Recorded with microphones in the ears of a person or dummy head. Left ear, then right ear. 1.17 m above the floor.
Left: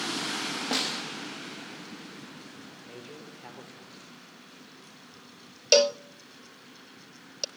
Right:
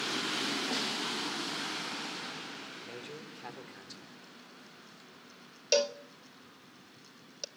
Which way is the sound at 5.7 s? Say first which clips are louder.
Left 8 dB; 15° left (ahead or behind).